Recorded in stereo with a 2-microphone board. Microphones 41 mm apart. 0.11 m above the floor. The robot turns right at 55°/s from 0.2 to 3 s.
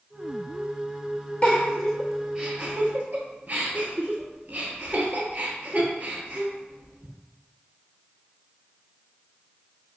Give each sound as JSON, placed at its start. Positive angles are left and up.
{"t": 1.4, "sound": "a giggle", "side_deg": 25, "distance_m": 0.8}